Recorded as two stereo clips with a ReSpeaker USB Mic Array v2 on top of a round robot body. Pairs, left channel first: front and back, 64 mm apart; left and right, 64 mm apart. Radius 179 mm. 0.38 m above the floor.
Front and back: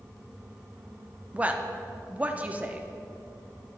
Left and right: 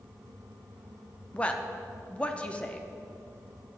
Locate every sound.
1.3 s a woman speaking: 140° left, 0.9 m